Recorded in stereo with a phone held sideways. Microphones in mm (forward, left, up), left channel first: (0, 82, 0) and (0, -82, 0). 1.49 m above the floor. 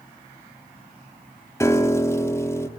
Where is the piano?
15° left (ahead or behind), 1.4 m.